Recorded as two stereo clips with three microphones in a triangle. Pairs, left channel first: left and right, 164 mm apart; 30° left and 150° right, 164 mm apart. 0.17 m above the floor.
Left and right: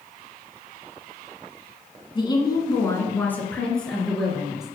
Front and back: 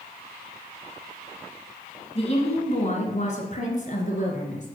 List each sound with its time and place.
2.1 s a woman speaking: 50° left, 1.7 m; by 4.7 s 5° right, 3 m